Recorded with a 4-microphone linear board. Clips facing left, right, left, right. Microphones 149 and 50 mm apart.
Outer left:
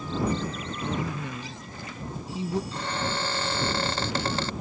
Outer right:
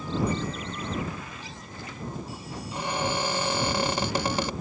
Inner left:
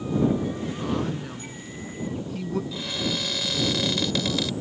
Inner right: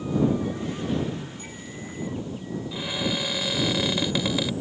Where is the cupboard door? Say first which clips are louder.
Outer right 2 dB, inner right 1 dB; 15° right (ahead or behind).